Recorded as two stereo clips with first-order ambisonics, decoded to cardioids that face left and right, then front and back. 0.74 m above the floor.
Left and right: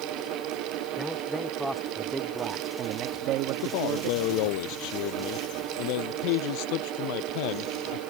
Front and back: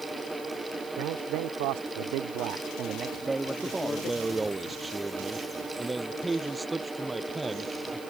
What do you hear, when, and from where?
1.0 s a man speaking: 175° left; by 4.6 s 55° right
3.6 s a man speaking: 100° left